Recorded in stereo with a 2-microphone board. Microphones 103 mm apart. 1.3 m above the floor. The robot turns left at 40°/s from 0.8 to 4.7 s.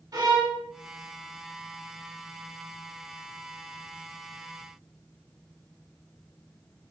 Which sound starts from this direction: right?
A violin, at 0.1 s.